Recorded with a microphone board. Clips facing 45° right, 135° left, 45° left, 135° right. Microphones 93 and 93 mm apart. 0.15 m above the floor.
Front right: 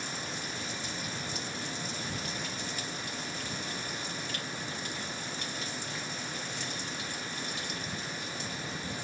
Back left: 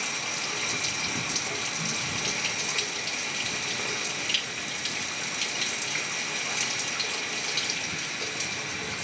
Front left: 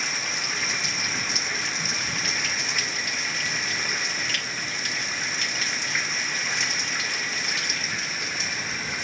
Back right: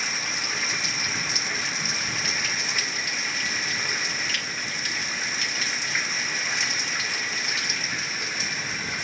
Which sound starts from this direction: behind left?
Running water, at 0.0 s.